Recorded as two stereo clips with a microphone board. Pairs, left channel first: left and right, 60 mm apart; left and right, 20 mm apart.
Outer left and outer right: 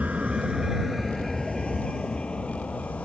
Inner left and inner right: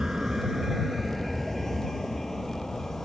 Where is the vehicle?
25° right (ahead or behind); by 3.0 s 20° left (ahead or behind).